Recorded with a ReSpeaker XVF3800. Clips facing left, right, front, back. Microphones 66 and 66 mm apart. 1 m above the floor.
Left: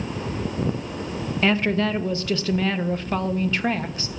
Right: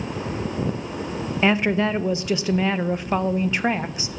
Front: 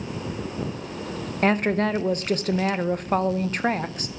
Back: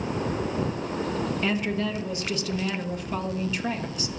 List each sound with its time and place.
1.4 s a woman speaking: 20° right, 0.5 m